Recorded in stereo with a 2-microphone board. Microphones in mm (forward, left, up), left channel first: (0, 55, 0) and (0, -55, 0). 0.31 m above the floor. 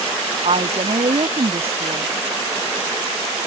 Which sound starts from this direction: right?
A woman speaking, at 0.4 s.